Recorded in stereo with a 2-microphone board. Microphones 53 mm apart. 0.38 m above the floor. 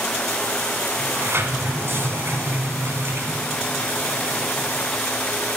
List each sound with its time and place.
1.0 s a sliding door: 50° right (ahead or behind), 1.6 m